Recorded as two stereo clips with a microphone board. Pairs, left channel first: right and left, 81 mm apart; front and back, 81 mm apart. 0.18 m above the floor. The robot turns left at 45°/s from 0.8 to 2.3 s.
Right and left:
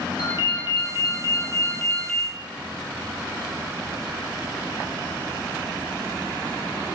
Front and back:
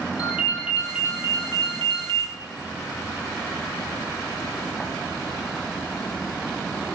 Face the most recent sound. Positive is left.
turn(degrees=-175)